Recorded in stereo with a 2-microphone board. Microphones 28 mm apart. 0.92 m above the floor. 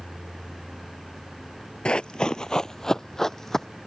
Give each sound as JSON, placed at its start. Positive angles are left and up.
{"t": 1.9, "sound": "running footsteps", "side_deg": 35}